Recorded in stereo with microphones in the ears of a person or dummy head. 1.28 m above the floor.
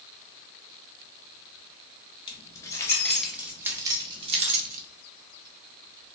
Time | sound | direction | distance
2.3 | keys jangling | 20° left (ahead or behind) | 1.2 m